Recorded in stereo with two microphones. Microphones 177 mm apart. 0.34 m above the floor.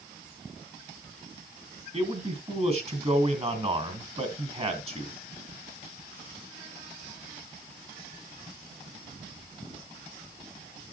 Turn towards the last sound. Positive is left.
turn(degrees=-35)  # may be behind; listen again after turning